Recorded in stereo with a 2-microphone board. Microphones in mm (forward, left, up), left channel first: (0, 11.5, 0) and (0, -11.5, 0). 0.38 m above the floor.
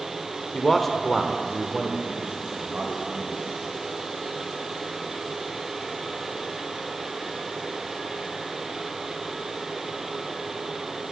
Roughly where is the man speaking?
Centre.